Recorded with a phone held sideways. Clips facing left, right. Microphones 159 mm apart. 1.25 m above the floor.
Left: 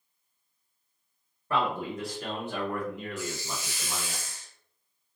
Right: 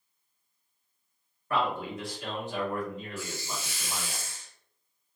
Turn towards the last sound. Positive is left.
turn(degrees=15)  # may be behind; listen again after turning